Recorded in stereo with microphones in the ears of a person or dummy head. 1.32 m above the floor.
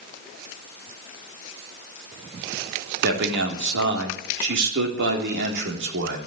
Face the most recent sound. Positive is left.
turn(degrees=-60)  # may be behind; listen again after turning